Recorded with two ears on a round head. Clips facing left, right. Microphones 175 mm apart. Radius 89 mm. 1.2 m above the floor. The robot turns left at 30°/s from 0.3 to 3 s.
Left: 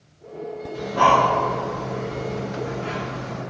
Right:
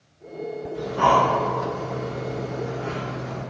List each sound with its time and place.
0.7 s breathing: 75° left (ahead or behind), 1.0 m; by 3.4 s 30° left (ahead or behind), 1.0 m